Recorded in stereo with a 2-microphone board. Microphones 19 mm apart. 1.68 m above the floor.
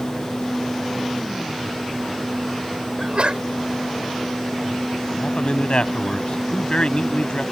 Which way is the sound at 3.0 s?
70° right (ahead or behind).